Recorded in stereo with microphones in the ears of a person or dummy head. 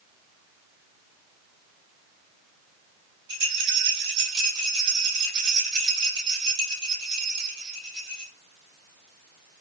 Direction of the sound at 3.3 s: 70° right (ahead or behind).